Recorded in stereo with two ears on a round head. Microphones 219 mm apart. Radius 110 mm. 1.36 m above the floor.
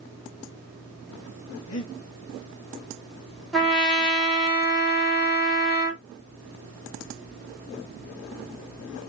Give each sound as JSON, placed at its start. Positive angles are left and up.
{"t": 1.7, "sound": "breathing", "side_deg": 65, "distance_m": 1.0}
{"t": 3.5, "sound": "a trumpet", "side_deg": 0, "distance_m": 0.9}